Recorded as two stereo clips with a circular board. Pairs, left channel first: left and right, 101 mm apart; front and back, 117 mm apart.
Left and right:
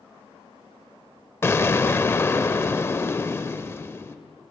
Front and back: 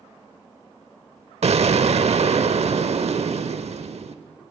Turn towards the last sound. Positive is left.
turn(degrees=155)